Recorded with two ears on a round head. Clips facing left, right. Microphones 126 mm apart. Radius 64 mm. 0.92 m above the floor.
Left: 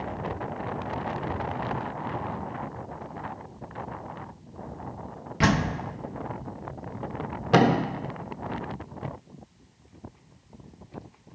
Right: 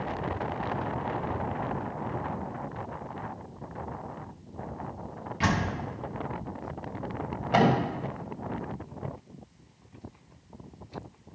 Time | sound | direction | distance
5.4 | a door slam | 60° left (ahead or behind) | 0.8 m
7.5 | a thud | 80° left | 1.3 m